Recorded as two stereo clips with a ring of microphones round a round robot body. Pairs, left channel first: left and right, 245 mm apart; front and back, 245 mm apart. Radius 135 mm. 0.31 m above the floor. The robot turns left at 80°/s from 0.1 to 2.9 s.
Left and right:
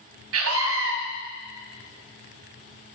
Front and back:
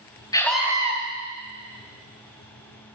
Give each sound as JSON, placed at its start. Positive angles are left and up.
{"t": 0.3, "sound": "a scream", "azimuth_deg": -75, "distance_m": 2.5}